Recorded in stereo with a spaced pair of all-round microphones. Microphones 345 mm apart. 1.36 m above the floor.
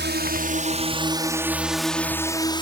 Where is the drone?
30° right (ahead or behind); by 2.6 s 15° left (ahead or behind).